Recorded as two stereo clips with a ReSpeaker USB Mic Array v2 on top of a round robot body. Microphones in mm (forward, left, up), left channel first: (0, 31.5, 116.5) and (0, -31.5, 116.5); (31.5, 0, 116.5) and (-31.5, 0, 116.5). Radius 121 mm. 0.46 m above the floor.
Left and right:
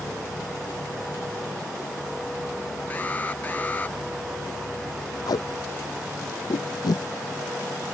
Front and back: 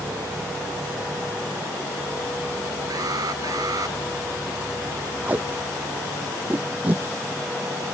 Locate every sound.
2.9 s an alarm: 155° left
5.3 s tape being pulled: 115° left